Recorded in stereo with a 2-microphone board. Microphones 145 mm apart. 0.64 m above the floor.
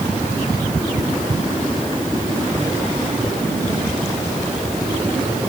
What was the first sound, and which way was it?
Only background noise.